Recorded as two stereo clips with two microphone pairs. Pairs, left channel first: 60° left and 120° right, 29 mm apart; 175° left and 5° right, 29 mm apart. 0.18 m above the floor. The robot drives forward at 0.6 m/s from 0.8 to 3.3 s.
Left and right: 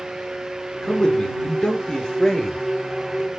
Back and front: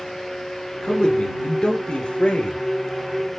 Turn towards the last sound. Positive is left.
turn(degrees=140)